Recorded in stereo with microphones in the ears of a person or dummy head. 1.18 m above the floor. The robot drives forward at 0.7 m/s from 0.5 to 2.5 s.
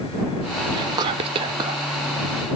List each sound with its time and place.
0.7 s whispering: 20° right (ahead or behind), 0.6 m